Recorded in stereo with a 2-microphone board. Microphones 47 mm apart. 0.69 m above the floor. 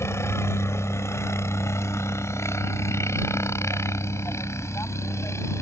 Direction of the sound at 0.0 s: 65° left (ahead or behind).